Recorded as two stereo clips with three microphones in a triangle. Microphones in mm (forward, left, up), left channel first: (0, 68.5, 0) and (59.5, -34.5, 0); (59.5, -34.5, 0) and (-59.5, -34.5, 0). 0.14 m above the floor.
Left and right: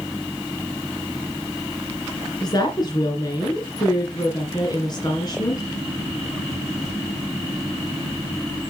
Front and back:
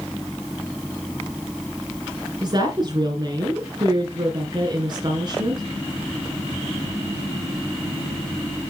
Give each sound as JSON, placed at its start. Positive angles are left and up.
{"t": 2.4, "sound": "a woman speaking", "azimuth_deg": 155, "distance_m": 2.0}